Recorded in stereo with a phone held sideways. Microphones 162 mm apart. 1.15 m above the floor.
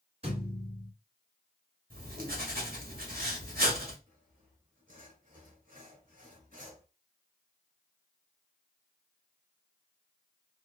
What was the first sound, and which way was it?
A thud, 40° right (ahead or behind).